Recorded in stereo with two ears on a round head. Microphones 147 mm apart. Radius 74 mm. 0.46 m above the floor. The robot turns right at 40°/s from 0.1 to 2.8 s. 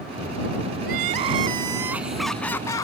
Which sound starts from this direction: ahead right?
Crying, at 0.8 s.